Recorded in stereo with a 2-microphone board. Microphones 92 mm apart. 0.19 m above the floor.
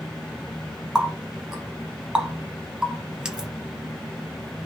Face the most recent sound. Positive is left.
turn(degrees=-10)  # may be behind; listen again after turning